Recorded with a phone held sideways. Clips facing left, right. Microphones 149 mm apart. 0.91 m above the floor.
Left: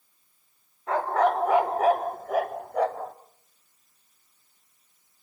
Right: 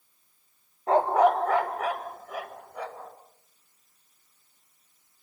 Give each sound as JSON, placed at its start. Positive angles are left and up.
{"t": 0.9, "sound": "a dog barking", "side_deg": -30, "distance_m": 0.7}